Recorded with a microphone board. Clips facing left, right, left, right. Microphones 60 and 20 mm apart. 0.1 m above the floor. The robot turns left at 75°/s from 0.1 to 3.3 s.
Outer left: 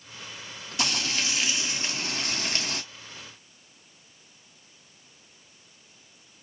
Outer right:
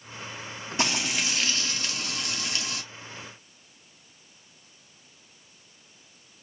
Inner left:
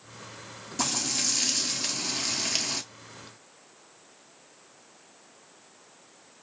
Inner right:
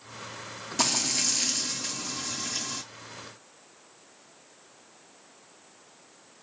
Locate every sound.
0.8 s frying: 135° right, 0.8 m; by 2.8 s 70° left, 0.8 m